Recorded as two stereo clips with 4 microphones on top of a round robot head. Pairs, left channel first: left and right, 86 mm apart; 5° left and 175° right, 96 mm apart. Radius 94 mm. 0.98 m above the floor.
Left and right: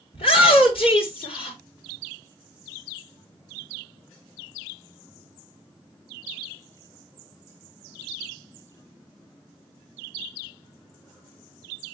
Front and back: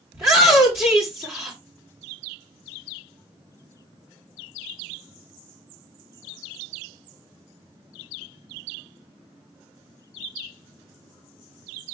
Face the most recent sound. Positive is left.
turn(degrees=120)